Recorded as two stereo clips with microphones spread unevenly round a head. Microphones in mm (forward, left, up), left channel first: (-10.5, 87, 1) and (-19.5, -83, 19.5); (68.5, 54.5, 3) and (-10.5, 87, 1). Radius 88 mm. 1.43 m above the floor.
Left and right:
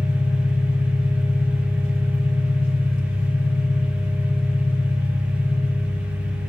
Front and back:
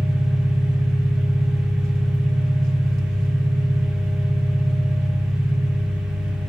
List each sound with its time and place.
0.0 s an engine running: 55° left, 1.5 m